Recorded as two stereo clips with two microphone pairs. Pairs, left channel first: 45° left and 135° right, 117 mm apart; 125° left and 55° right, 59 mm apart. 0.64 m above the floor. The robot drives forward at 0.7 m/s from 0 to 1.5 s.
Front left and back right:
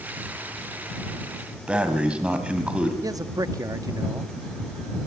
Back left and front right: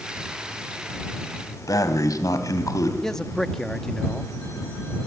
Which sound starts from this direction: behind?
A man speaking, at 3.0 s.